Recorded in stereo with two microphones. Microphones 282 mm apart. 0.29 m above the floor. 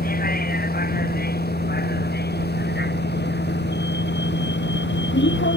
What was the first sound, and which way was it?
A vehicle, 30° left (ahead or behind).